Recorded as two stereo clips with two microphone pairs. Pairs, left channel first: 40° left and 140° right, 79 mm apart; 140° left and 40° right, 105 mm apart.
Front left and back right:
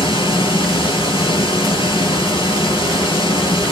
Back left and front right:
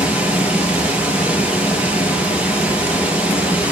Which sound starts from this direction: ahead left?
Running water, at 0.0 s.